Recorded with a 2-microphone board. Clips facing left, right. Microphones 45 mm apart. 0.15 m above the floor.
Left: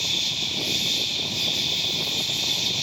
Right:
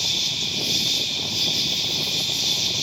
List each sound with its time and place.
0.0 s an insect: 75° right (ahead or behind), 3.5 m